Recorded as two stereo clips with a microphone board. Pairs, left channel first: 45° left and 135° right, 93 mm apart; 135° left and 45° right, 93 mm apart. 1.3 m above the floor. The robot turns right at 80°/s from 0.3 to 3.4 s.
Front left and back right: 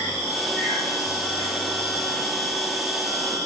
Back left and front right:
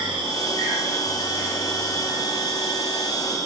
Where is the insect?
50° right, 5 m; by 3.5 s 165° right, 5 m.